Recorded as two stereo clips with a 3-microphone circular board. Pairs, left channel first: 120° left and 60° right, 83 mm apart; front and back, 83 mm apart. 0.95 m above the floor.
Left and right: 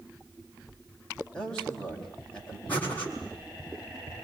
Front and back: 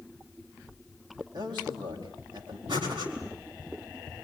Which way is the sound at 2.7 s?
170° right.